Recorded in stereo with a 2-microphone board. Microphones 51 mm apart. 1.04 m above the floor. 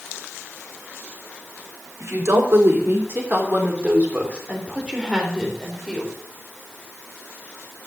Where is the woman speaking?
60° right (ahead or behind), 3.5 m; by 6.1 s 5° right (ahead or behind), 4 m.